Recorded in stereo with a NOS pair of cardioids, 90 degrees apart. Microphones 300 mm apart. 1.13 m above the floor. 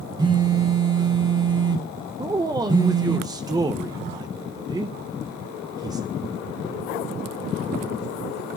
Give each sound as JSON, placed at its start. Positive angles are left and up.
{"t": 0.2, "sound": "a phone buzzing", "azimuth_deg": -15, "distance_m": 1.6}
{"t": 2.2, "sound": "a man speaking", "azimuth_deg": -10, "distance_m": 0.6}